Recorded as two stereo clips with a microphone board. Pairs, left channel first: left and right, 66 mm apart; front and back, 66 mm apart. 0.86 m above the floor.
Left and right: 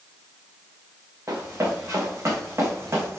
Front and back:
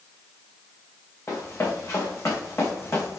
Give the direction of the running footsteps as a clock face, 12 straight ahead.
1 o'clock.